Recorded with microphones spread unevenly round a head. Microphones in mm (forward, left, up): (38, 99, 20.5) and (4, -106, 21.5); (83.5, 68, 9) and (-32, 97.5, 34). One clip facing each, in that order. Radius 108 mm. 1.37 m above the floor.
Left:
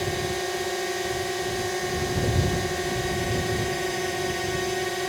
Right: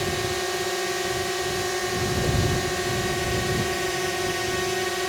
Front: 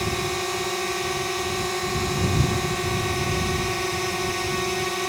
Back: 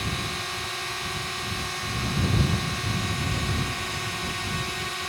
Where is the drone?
10° right.